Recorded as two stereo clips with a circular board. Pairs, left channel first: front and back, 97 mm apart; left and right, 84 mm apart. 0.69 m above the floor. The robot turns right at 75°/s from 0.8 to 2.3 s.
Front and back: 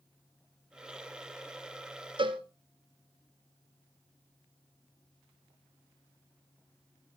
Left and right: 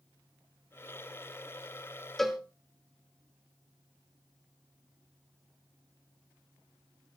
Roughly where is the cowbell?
Behind.